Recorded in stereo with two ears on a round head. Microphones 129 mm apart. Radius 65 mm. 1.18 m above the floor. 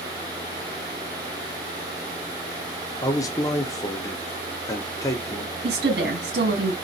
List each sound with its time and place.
3.0 s a man speaking: 25° left (ahead or behind), 0.7 m
5.6 s a woman speaking: 80° right, 1.6 m